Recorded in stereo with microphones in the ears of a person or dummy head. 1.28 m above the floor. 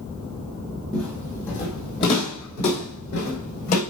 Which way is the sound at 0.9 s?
10° left (ahead or behind).